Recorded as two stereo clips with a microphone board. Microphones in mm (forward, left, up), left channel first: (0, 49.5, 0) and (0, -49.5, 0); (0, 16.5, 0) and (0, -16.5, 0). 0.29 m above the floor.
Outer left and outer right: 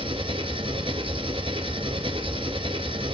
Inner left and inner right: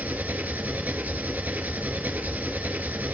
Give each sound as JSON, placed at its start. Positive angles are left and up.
{"t": 0.0, "sound": "an engine running", "side_deg": -65, "distance_m": 1.1}